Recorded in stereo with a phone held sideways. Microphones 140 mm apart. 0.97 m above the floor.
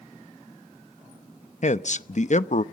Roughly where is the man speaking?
Left.